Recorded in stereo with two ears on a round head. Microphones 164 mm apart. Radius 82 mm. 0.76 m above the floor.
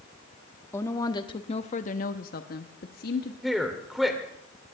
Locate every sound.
0.7 s a woman speaking: 15° left (ahead or behind), 1.2 m; by 3.3 s 55° left (ahead or behind), 1.3 m
3.4 s a man speaking: centre (ahead or behind), 2.5 m